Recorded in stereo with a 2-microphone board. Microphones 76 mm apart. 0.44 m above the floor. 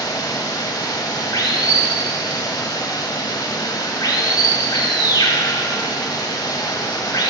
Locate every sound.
0.0 s running water: 60° left (ahead or behind), 0.8 m